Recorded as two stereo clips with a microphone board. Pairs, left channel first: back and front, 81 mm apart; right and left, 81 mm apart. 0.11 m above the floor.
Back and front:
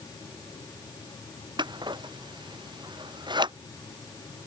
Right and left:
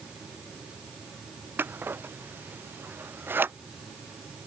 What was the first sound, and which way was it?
Scissors, 25° left.